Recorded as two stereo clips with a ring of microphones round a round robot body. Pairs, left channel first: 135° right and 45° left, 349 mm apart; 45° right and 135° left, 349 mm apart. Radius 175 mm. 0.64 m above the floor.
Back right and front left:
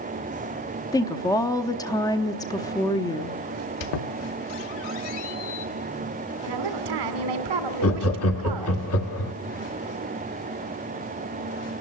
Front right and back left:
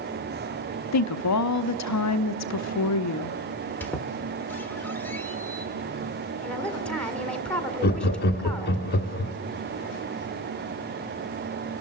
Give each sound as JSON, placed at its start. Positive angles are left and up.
{"t": 0.9, "sound": "a woman speaking", "azimuth_deg": -60, "distance_m": 0.8}
{"t": 3.8, "sound": "a squeak", "azimuth_deg": -130, "distance_m": 1.3}
{"t": 6.4, "sound": "a woman speaking", "azimuth_deg": 40, "distance_m": 2.0}
{"t": 7.8, "sound": "laughter", "azimuth_deg": -100, "distance_m": 1.4}